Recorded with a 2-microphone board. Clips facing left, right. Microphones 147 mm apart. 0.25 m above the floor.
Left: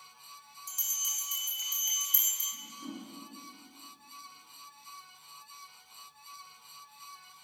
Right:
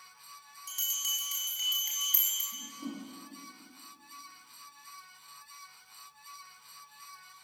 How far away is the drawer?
I don't hear a drawer.